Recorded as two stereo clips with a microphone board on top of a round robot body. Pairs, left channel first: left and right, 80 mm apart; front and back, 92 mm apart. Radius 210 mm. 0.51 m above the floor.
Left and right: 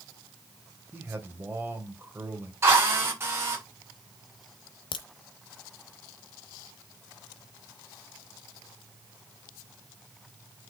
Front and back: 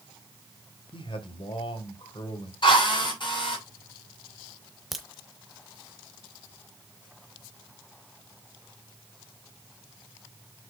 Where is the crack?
90° left, 0.8 m.